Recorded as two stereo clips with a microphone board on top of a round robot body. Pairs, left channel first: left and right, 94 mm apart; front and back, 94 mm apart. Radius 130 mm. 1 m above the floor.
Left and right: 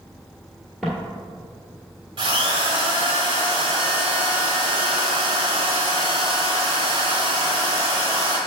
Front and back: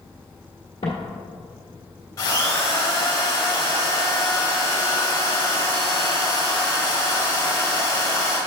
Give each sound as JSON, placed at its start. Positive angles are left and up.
{"t": 0.8, "sound": "footsteps", "azimuth_deg": 5, "distance_m": 1.0}
{"t": 2.2, "sound": "a drill", "azimuth_deg": -65, "distance_m": 1.1}